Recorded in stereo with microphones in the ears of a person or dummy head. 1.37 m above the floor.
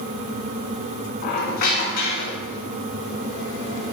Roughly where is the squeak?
Left.